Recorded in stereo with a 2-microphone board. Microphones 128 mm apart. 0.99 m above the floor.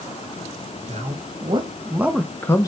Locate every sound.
0.9 s a man speaking: 60° right (ahead or behind), 1.0 m; by 2.7 s 30° left (ahead or behind), 0.6 m